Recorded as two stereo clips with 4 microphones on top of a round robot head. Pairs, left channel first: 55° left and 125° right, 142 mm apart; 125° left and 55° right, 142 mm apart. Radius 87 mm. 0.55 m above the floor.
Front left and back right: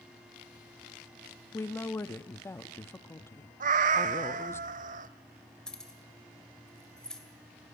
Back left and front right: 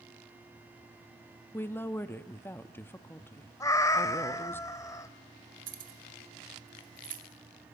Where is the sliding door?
No sliding door in this recording.